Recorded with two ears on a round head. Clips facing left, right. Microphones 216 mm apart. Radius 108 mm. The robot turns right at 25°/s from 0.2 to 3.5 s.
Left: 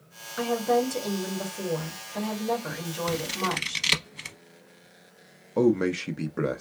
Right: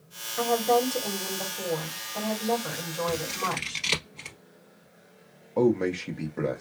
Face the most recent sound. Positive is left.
turn(degrees=15)  # may be behind; listen again after turning